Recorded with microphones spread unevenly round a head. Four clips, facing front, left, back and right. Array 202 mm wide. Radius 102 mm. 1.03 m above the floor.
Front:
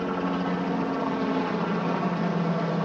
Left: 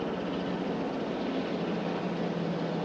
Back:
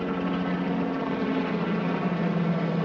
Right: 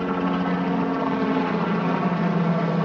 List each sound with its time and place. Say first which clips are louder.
0.0 s a helicopter: right 9 dB, front 1 dB; 100° right